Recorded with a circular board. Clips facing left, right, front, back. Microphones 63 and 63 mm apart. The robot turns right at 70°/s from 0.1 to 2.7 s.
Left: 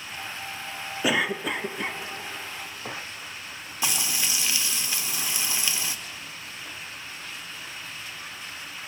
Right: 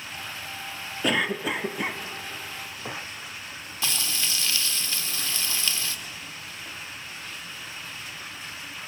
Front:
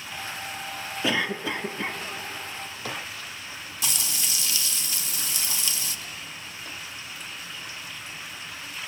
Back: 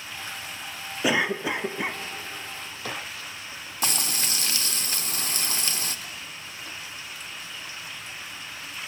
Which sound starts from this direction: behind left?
A cough, at 1.0 s.